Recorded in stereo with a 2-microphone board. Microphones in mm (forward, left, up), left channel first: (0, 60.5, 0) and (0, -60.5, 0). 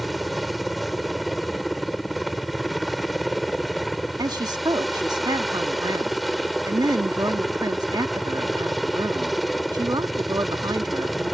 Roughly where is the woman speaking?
Right.